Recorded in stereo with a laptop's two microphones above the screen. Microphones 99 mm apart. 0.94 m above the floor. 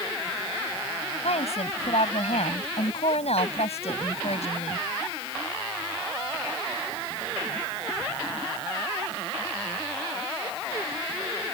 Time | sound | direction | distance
1.2 | a woman speaking | 85° left | ?